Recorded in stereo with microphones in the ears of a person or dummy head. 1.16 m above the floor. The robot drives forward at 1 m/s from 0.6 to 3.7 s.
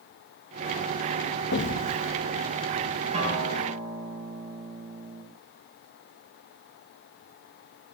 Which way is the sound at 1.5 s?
60° left (ahead or behind).